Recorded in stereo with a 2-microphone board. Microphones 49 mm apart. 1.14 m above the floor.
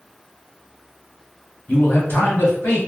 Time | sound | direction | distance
1.7 | a man speaking | 45° left (ahead or behind) | 0.9 m